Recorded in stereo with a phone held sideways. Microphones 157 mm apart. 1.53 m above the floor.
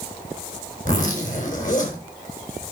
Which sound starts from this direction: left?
A zipper, at 0.8 s.